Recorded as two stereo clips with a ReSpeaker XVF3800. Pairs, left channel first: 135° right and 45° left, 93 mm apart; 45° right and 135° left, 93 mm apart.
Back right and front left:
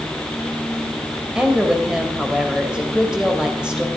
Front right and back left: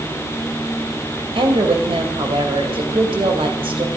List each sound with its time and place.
1.4 s a woman speaking: 125° left, 3 m